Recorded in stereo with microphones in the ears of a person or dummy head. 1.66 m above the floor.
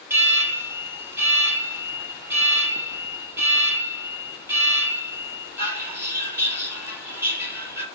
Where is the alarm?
10° right (ahead or behind), 2.5 m.